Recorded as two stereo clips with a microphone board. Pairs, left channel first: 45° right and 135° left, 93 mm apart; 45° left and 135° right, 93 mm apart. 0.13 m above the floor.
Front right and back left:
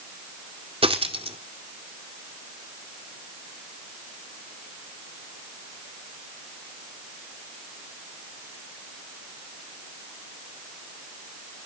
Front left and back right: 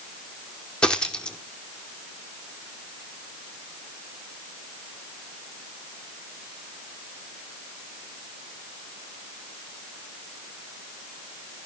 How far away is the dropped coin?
About 1.4 m.